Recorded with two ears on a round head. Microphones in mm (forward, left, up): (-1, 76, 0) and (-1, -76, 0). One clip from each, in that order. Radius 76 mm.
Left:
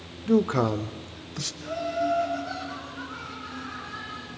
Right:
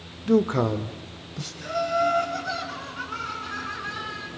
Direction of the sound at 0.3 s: 10° right (ahead or behind).